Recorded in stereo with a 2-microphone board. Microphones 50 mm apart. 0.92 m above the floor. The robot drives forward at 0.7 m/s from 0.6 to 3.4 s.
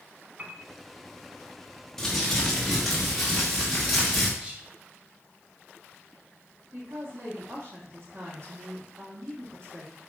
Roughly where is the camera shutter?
I don't hear a camera shutter.